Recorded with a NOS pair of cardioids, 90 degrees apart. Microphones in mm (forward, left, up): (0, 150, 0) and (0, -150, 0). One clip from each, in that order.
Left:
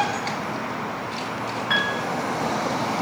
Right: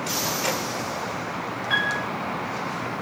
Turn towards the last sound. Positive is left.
turn(degrees=35)